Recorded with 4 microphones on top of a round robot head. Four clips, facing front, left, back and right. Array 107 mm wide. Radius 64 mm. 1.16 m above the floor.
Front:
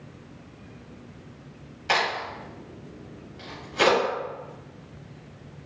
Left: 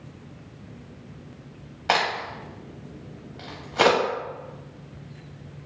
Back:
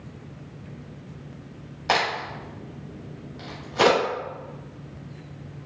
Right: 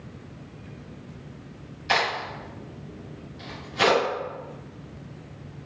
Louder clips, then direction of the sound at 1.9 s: Left 1 dB, back 1 dB; 120° left.